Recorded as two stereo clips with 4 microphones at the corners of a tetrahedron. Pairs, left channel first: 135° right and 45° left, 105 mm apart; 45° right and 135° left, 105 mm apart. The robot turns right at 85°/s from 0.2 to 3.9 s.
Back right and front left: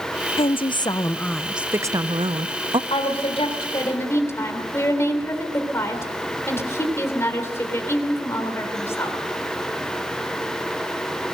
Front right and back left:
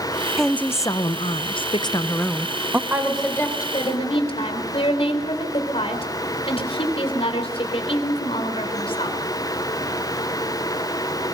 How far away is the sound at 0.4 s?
About 0.5 m.